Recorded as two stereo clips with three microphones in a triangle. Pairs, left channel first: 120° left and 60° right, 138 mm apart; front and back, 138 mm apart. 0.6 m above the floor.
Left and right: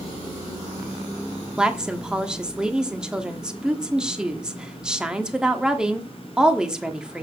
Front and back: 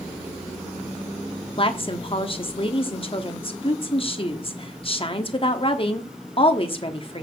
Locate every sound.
1.6 s a woman speaking: 20° left, 1.2 m